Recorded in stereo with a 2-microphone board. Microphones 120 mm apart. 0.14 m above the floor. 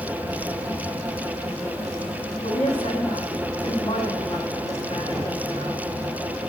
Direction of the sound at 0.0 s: 25° left (ahead or behind).